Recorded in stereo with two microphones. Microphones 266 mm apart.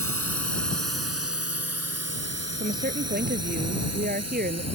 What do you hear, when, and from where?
0.0 s a drone: 60° right (ahead or behind); by 4.8 s 70° right (ahead or behind)
2.6 s a woman speaking: 35° right (ahead or behind)